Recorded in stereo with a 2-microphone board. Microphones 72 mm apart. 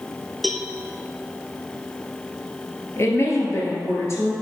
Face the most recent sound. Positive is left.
turn(degrees=40)  # may be behind; listen again after turning